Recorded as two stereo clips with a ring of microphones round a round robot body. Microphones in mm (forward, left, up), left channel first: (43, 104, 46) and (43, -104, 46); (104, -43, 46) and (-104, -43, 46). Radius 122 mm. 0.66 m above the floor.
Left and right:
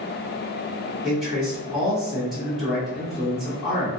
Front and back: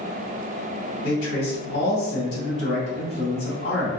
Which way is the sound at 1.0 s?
5° right.